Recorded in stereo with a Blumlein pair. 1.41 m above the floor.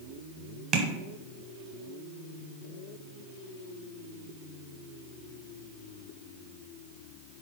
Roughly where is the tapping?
Ahead right.